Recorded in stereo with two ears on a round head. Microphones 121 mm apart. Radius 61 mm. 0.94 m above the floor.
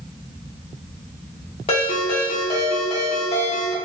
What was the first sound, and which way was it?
A ringtone, 45° left (ahead or behind).